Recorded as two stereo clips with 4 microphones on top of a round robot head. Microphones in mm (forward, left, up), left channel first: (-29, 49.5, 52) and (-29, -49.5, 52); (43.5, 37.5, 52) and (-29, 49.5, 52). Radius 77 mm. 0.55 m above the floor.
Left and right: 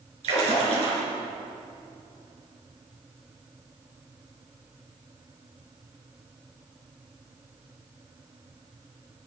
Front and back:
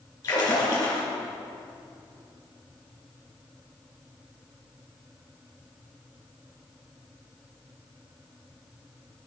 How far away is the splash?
About 4.5 m.